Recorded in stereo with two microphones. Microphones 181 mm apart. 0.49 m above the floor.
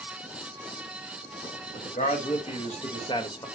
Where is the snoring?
No snoring in this recording.